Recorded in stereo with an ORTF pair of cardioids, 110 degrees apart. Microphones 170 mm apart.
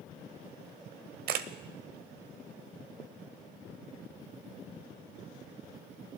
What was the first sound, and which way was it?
A camera shutter, 65° right.